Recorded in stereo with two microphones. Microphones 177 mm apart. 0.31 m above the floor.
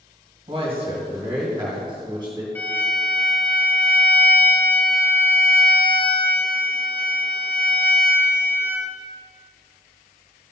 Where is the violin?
10° left (ahead or behind), 1.5 m.